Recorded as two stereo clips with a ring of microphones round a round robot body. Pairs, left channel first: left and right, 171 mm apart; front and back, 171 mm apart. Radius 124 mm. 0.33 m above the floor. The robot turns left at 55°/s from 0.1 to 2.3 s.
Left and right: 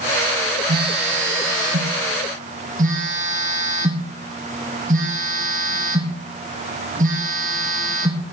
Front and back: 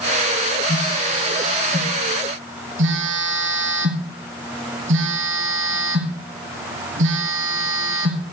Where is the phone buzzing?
60° right, 1.6 m; by 8.2 s 150° right, 1.6 m.